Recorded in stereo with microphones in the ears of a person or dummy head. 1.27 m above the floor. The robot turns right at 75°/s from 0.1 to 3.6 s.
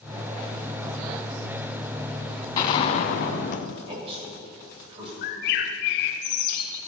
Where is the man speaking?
30° right (ahead or behind), 6.5 m.